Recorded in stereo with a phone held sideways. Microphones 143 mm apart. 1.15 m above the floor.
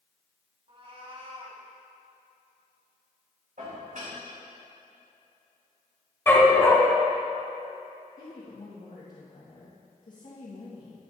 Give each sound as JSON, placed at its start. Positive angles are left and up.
{"t": 0.7, "sound": "a cat meowing", "side_deg": -45, "distance_m": 1.3}
{"t": 3.6, "sound": "dishes clattering", "side_deg": -70, "distance_m": 3.0}
{"t": 6.3, "sound": "a dog barking", "side_deg": 15, "distance_m": 1.7}
{"t": 8.2, "sound": "a woman speaking", "side_deg": 70, "distance_m": 1.6}